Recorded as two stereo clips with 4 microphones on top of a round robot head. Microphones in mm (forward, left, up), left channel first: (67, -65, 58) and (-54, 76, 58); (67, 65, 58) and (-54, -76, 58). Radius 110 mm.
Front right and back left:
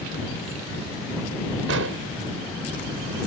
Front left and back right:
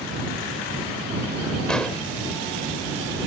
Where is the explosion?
135° left.